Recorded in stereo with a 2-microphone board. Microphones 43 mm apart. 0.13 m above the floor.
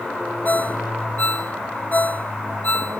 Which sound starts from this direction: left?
A ringtone, at 0.5 s.